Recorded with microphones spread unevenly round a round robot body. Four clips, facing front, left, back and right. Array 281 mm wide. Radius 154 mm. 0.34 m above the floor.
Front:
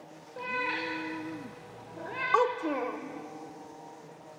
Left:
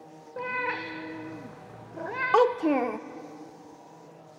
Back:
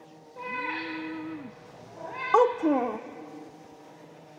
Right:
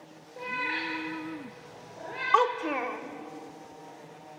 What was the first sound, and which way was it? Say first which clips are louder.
A cat meowing: left 2 dB, even; 85° left.